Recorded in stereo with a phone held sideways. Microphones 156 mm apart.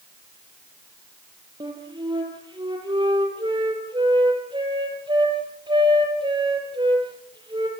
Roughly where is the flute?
Right.